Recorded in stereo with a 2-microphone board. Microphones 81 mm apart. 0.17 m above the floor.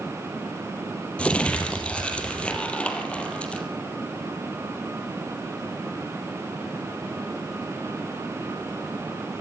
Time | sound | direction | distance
1.2 | crumpling | 15° left (ahead or behind) | 3 m